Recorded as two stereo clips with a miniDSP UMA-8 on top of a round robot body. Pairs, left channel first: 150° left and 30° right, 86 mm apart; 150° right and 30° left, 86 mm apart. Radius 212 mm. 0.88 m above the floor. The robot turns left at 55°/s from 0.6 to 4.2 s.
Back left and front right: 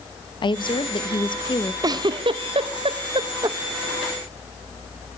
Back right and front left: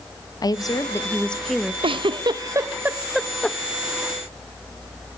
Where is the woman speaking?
170° left, 1.5 m; by 1.7 s 110° left, 1.5 m.